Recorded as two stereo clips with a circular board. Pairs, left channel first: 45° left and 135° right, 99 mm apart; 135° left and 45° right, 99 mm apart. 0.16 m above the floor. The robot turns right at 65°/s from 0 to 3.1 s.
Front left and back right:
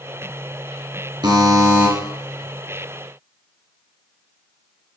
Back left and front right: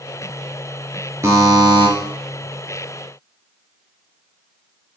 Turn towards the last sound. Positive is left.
turn(degrees=20)